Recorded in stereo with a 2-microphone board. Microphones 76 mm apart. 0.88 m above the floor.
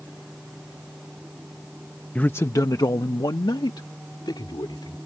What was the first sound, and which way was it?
A man speaking, 20° left (ahead or behind).